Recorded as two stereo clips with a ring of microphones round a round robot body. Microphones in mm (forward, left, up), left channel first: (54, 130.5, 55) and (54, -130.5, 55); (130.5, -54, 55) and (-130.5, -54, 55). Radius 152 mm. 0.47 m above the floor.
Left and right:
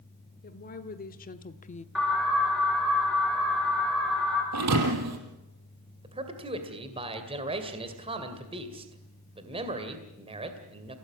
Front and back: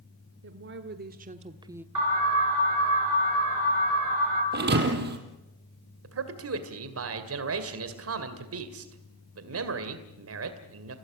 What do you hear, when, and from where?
0.4 s a woman speaking: 145° left, 1.5 m; by 1.9 s 105° left, 0.8 m
1.9 s an alarm: straight behind, 8.5 m
4.5 s a thud: 130° right, 3.5 m
6.0 s a man speaking: 160° right, 2 m